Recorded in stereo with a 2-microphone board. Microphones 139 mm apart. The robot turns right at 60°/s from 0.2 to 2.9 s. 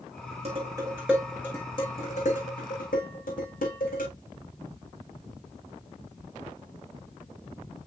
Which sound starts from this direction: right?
Dishes clattering, at 0.5 s.